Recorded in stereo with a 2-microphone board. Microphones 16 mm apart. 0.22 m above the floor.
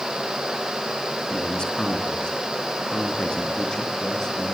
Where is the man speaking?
60° left (ahead or behind), 3 m; by 4.5 s 40° left (ahead or behind), 4.5 m.